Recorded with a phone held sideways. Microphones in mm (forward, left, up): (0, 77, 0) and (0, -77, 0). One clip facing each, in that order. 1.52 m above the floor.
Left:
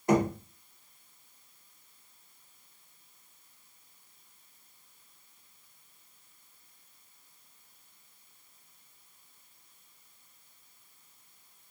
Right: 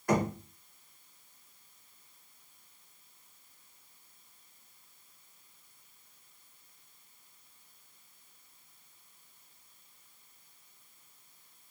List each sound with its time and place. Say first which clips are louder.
0.1 s knocking: left 4 dB; 20° left (ahead or behind), 0.9 m